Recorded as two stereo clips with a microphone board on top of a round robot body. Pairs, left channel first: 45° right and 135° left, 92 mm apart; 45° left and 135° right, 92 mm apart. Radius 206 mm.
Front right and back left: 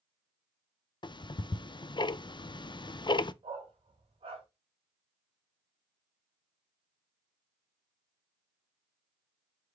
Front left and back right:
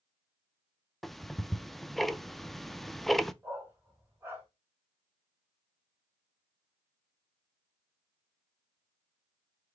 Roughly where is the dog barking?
Behind.